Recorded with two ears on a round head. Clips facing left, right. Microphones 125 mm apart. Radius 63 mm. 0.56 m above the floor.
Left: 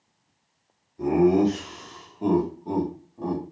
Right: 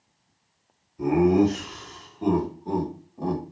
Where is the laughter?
35° left (ahead or behind), 1.3 m; by 3.4 s 15° right (ahead or behind), 1.0 m.